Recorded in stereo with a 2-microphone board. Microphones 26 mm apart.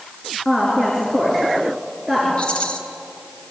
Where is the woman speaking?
15° left (ahead or behind), 5.5 m; by 2.3 s 5° left (ahead or behind), 6 m.